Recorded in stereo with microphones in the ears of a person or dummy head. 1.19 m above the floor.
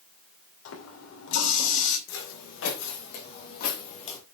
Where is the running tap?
70° left (ahead or behind), 2.5 m.